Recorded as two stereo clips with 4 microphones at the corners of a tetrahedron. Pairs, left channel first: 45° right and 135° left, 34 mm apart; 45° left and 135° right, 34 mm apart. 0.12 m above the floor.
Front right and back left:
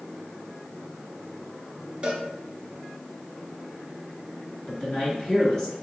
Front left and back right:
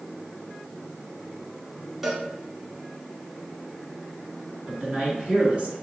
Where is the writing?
I don't hear writing.